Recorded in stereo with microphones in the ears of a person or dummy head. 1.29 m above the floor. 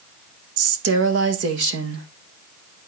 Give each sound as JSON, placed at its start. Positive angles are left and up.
{"t": 0.6, "sound": "a woman speaking", "side_deg": -65, "distance_m": 1.4}